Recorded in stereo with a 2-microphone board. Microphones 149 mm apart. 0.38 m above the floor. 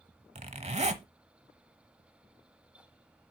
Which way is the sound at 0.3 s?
45° right (ahead or behind).